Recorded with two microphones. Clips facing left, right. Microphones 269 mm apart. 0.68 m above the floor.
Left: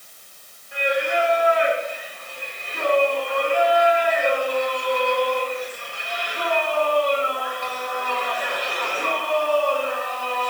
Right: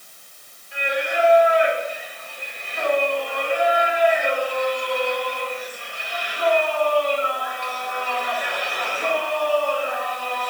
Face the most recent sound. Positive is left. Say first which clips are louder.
# left 2 dB
turn(degrees=55)  # may be behind; listen again after turning